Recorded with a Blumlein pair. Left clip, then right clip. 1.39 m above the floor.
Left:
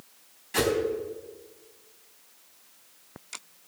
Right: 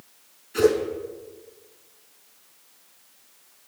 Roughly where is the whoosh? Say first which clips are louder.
Right 7 dB; ahead left.